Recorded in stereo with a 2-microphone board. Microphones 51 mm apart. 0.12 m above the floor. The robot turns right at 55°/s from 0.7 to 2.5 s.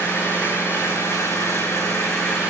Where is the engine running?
35° left, 8 m; by 2.5 s 135° left, 8 m.